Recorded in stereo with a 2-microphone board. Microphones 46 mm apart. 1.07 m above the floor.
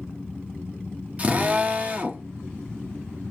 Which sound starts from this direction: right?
A drill, at 1.2 s.